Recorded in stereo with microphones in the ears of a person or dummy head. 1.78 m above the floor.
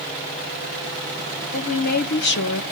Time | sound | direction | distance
1.5 | a woman speaking | 40° left (ahead or behind) | 1.5 m